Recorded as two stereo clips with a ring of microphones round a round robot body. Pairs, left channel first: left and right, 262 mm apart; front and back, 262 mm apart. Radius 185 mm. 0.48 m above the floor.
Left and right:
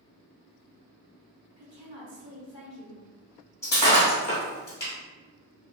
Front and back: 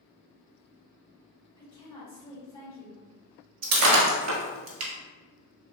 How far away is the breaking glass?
About 1.1 m.